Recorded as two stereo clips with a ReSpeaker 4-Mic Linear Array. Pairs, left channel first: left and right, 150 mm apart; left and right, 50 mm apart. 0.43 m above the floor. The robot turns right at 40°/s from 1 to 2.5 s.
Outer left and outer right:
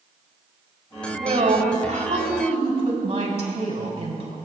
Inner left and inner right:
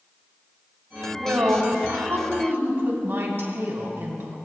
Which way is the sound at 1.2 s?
105° right.